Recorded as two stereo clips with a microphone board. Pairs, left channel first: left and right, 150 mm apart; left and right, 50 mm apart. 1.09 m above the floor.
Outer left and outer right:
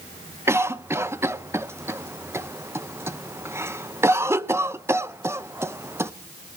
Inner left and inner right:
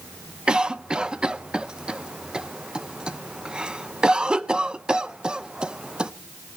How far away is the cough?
About 0.5 m.